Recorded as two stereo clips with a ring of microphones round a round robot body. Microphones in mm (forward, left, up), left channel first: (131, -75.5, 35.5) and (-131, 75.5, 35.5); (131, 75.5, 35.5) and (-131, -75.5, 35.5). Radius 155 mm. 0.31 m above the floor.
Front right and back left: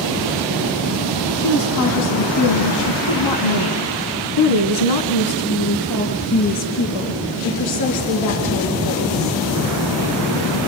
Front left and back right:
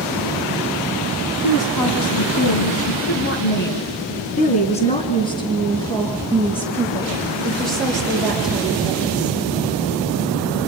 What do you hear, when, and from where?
1.4 s a woman speaking: 20° left, 2.5 m; by 9.4 s 65° right, 7 m